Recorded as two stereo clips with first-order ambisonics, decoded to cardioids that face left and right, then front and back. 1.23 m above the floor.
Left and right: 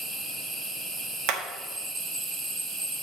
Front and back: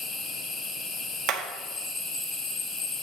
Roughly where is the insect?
Ahead right.